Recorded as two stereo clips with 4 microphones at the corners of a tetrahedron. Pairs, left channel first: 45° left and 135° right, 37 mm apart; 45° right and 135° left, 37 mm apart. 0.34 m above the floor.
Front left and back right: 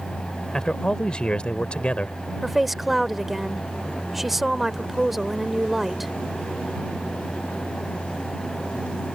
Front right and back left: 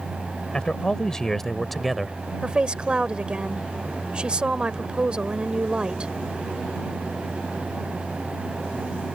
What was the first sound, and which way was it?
A man speaking, 5° right.